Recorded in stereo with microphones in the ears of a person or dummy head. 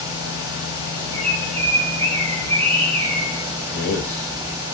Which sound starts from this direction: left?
A man speaking, at 3.7 s.